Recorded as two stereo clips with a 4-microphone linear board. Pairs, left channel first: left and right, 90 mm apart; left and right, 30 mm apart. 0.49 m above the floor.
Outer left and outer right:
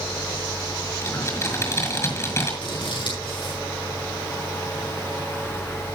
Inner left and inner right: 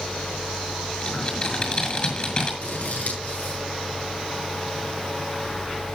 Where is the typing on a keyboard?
30° left (ahead or behind), 6 m.